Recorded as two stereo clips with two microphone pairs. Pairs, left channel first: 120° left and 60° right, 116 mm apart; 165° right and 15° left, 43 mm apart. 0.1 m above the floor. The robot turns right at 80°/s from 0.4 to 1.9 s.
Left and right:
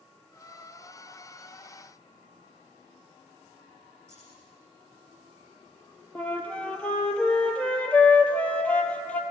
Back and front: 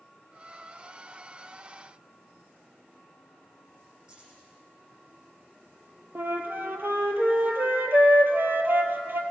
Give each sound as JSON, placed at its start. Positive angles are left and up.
{"t": 4.1, "sound": "keys jangling", "azimuth_deg": -50, "distance_m": 4.0}
{"t": 6.2, "sound": "a flute", "azimuth_deg": 40, "distance_m": 0.8}